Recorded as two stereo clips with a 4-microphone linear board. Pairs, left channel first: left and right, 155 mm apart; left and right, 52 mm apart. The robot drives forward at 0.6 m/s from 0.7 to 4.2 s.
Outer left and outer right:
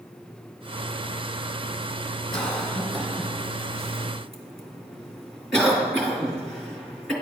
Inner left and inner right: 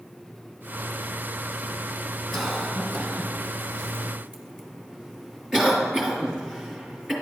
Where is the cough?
5° left (ahead or behind), 1.4 m; by 7.1 s centre (ahead or behind), 2.5 m.